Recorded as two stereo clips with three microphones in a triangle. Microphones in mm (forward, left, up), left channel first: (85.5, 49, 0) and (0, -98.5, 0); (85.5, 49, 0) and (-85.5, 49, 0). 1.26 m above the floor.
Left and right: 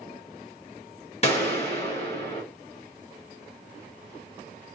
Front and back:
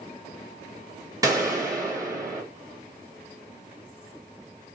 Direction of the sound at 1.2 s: 110° left.